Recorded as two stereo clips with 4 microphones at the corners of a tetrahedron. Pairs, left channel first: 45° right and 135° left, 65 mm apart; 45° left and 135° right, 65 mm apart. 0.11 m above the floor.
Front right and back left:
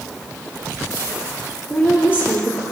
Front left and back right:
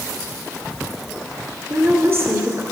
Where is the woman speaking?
100° right, 2 m.